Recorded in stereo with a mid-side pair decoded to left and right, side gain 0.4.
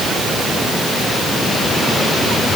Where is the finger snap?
No finger snap in this recording.